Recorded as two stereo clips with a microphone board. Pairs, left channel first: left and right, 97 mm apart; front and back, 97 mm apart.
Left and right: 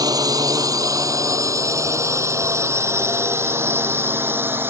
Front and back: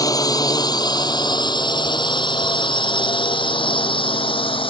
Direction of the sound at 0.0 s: 50° right.